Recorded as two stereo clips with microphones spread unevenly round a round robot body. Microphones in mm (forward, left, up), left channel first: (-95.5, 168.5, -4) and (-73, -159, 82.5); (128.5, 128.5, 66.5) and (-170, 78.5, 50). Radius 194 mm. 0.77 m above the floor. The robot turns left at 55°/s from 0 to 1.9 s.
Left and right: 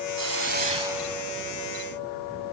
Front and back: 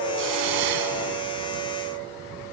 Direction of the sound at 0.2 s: 125° right.